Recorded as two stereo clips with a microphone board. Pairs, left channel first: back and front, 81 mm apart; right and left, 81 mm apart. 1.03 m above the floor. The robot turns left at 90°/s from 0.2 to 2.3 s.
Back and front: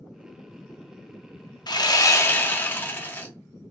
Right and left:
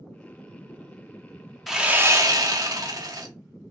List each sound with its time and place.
1.7 s sawing: straight behind, 0.5 m; by 3.3 s 120° left, 0.5 m